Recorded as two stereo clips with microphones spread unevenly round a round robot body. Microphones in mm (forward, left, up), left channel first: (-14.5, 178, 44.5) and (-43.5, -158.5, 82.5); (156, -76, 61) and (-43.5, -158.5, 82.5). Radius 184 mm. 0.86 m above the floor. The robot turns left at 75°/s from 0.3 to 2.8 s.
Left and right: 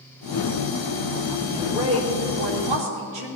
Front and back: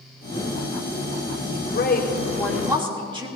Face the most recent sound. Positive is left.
turn(degrees=-90)